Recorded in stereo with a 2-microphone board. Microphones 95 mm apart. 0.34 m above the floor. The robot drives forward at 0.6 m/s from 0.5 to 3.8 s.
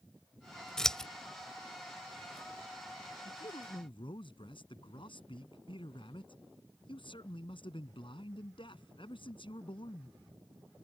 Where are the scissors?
5° left (ahead or behind).